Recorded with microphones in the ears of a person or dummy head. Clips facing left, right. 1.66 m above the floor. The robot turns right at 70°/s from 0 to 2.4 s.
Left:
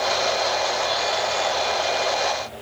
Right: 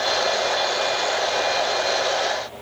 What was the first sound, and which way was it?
Only background noise.